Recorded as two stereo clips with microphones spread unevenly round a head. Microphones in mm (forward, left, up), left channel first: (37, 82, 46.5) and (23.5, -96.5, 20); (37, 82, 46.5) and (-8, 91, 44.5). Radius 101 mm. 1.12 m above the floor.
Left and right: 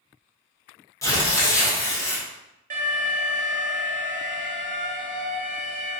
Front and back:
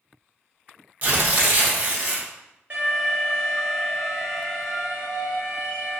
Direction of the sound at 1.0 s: 160° left.